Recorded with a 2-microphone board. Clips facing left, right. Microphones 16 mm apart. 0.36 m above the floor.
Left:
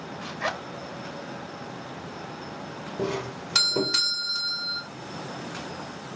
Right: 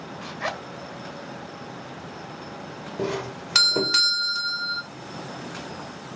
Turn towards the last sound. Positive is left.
turn(degrees=-15)  # may be behind; listen again after turning